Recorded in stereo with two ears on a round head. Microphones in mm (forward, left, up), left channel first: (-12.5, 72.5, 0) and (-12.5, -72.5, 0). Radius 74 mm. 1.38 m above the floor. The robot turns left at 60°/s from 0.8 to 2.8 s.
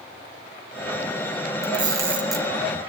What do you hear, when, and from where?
1.6 s a camera shutter: 40° right (ahead or behind), 2 m; by 2.5 s 10° left (ahead or behind), 2 m